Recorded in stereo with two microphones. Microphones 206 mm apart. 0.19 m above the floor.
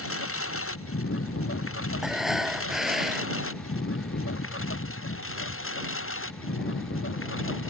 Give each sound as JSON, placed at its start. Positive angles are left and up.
{"t": 0.0, "sound": "a lawn mower", "side_deg": 80}
{"t": 2.0, "sound": "breathing", "side_deg": 0}